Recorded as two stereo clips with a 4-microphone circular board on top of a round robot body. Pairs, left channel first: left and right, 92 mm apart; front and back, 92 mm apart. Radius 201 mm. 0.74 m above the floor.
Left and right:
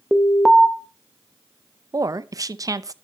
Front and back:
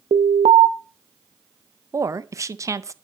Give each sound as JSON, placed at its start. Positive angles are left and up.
{"t": 0.1, "sound": "an alarm", "azimuth_deg": 180, "distance_m": 0.8}
{"t": 1.9, "sound": "a woman speaking", "azimuth_deg": -130, "distance_m": 0.7}